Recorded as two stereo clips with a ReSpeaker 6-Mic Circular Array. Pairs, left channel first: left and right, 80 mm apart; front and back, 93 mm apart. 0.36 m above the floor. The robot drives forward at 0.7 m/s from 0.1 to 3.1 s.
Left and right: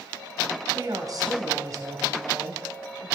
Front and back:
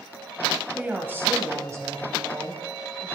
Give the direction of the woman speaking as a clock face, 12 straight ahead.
4 o'clock.